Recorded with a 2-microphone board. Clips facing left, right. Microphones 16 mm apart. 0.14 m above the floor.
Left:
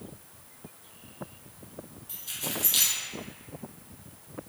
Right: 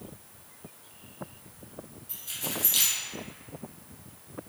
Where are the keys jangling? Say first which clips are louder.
Even; 20° left (ahead or behind), 1.4 m.